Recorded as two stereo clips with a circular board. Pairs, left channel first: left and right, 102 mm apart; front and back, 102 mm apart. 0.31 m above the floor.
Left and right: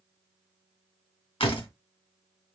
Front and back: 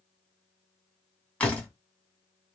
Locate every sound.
1.4 s a door slam: 75° left, 2 m